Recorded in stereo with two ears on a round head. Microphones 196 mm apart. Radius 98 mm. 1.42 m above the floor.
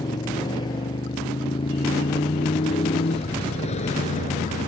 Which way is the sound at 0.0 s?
20° left (ahead or behind).